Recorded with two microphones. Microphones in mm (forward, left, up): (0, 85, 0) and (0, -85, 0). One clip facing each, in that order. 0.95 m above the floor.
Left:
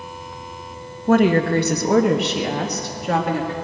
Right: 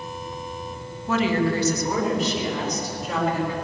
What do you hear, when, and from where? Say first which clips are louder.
1.1 s a woman speaking: left 6 dB; 45° left (ahead or behind), 1.0 m; by 3.5 s 60° left (ahead or behind), 1.9 m